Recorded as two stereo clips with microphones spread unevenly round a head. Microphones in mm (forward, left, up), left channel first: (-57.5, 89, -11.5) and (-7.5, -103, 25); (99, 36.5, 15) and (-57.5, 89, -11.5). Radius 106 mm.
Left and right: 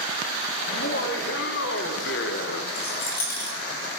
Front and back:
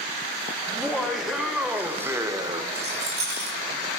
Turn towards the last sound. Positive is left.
turn(degrees=145)